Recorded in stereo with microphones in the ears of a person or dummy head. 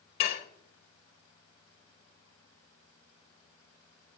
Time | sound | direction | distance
0.2 | dishes clattering | 35° left (ahead or behind) | 1.1 m